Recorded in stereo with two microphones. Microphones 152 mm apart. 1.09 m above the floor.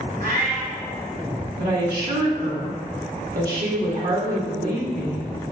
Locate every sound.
0.2 s a cat meowing: 65° right (ahead or behind), 2 m
1.6 s a woman speaking: 85° right, 2.0 m